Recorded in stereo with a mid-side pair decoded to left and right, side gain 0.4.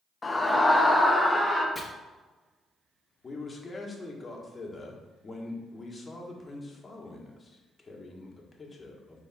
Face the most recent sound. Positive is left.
turn(degrees=35)